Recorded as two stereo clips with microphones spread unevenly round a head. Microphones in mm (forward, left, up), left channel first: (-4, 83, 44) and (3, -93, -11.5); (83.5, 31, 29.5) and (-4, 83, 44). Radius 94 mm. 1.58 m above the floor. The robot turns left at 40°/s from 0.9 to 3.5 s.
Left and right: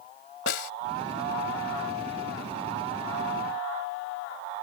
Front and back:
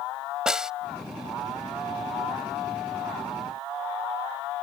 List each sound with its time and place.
0.5 s a snare drum: 65° left